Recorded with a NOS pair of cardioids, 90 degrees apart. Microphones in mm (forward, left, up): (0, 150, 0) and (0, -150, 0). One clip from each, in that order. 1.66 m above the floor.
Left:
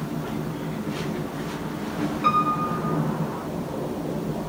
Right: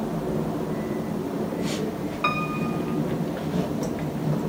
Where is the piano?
35° right, 0.9 m.